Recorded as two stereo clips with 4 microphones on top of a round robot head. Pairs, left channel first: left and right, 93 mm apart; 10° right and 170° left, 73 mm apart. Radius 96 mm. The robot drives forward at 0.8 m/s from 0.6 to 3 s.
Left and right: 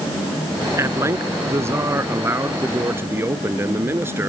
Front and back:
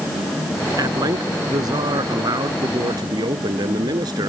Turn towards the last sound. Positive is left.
turn(degrees=-155)